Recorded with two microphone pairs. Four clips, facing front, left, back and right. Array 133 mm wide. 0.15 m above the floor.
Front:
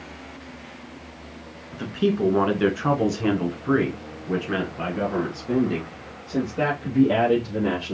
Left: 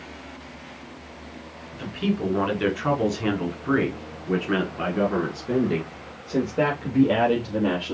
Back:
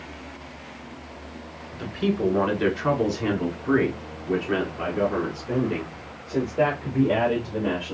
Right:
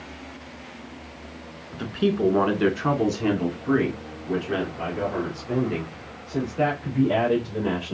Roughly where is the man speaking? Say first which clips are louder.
Right 3 dB, front 3 dB; ahead right.